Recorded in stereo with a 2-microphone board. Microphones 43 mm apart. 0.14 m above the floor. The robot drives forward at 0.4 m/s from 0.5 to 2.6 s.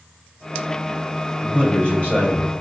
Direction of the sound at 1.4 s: 40° left (ahead or behind).